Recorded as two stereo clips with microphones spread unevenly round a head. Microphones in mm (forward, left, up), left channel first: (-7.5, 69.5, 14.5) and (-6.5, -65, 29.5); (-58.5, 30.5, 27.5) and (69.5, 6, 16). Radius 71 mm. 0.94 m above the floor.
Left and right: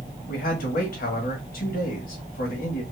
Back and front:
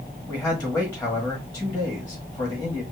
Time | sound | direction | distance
0.3 | a man speaking | 85° left | 1.5 m